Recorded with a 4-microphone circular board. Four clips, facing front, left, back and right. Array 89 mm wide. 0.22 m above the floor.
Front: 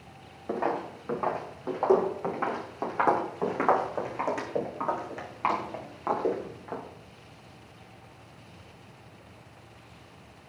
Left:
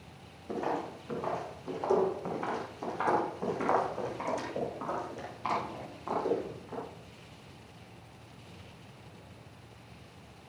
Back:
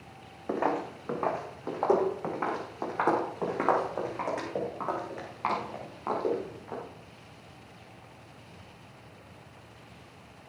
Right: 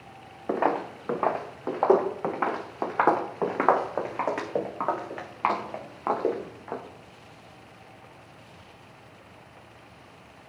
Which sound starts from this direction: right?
Footsteps, at 0.5 s.